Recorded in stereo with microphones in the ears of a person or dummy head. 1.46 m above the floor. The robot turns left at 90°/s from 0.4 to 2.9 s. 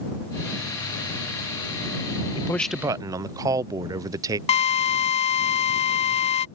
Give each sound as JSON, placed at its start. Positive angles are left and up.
{"t": 2.4, "sound": "a man speaking", "azimuth_deg": 30}
{"t": 4.5, "sound": "a drill", "side_deg": 30}